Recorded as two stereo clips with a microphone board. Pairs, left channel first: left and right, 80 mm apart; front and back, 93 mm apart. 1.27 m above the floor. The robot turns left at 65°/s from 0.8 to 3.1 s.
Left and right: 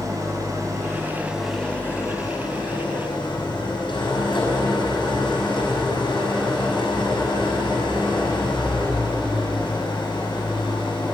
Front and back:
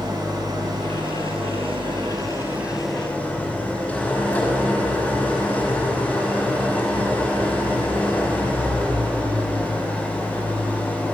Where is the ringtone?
I don't hear a ringtone.